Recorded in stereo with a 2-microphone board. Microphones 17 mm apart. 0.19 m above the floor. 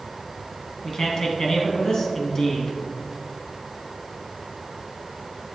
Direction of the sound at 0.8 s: 35° left (ahead or behind).